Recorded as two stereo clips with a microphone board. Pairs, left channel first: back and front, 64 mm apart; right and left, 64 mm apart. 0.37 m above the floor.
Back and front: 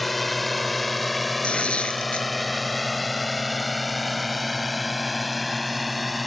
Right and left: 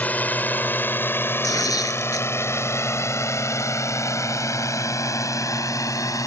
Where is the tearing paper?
110° right.